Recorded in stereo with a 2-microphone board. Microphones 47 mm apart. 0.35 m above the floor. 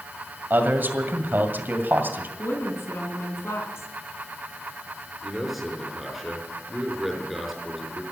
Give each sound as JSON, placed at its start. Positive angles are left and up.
{"t": 0.5, "sound": "a man speaking", "side_deg": -45, "distance_m": 2.0}
{"t": 2.4, "sound": "a woman speaking", "side_deg": 70, "distance_m": 3.5}
{"t": 5.2, "sound": "a man speaking", "side_deg": -5, "distance_m": 4.5}